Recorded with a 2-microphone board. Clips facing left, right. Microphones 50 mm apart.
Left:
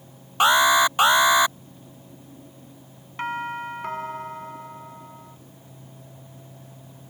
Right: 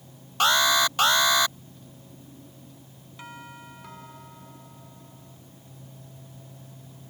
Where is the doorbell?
55° left (ahead or behind).